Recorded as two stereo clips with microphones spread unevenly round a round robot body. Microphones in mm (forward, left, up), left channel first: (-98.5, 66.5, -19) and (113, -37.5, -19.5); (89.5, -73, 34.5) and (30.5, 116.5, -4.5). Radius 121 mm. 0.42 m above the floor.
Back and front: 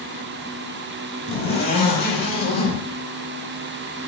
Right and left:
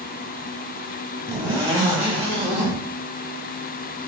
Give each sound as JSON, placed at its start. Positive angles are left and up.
{"t": 1.3, "sound": "a zipper", "azimuth_deg": 170, "distance_m": 1.5}